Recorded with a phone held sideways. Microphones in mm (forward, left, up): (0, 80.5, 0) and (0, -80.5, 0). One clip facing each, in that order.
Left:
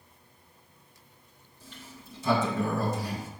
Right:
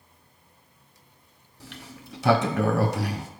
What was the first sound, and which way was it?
A sliding door, 75° right (ahead or behind).